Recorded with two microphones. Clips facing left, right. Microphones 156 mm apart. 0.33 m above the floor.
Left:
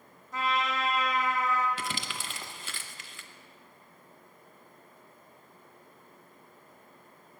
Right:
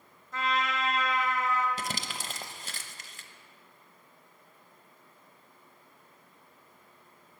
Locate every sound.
0.3 s a trumpet: 10° left (ahead or behind), 1.9 m
1.8 s crumpling: 40° right (ahead or behind), 0.7 m